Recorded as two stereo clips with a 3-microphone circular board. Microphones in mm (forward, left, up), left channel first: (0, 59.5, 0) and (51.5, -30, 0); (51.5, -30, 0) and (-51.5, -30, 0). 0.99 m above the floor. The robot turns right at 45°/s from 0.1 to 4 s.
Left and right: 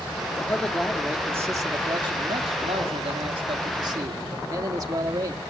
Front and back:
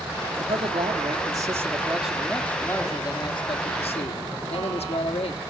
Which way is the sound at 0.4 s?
170° right.